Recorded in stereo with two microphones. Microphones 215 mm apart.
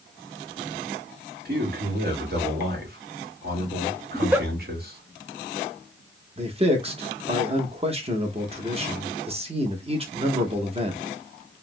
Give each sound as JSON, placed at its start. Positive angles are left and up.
{"t": 1.4, "sound": "a man speaking", "side_deg": -45, "distance_m": 1.4}
{"t": 4.1, "sound": "a giggle", "side_deg": -10, "distance_m": 0.5}
{"t": 6.4, "sound": "a man speaking", "side_deg": -30, "distance_m": 0.9}